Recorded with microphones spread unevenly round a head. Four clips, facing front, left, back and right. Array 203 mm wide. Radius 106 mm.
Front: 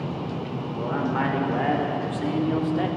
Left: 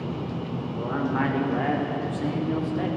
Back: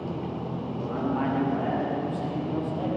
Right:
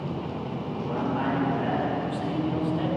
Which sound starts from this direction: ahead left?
A man speaking, at 0.7 s.